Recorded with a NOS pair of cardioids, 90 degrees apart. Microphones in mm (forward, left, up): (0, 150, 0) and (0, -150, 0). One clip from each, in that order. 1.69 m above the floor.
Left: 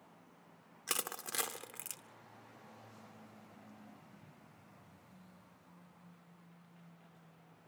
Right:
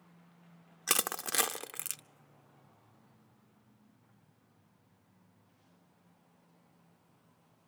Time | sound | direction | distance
0.9 | crushing | 35° right | 0.7 m